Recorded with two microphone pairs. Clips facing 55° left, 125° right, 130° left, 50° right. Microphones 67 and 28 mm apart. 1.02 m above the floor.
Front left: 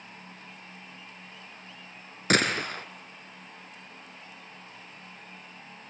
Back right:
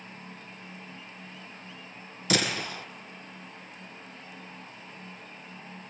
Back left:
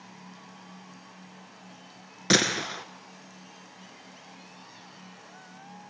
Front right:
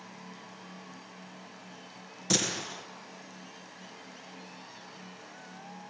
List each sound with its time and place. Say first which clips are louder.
2.3 s a gunshot: front left 3 dB, back left 7 dB; 95° left, 2.5 m